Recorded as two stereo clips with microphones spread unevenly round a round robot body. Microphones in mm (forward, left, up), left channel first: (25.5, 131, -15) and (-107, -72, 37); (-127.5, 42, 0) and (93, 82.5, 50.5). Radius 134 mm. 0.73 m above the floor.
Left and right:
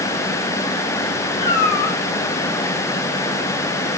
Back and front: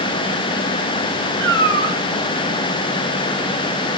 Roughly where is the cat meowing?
Ahead left.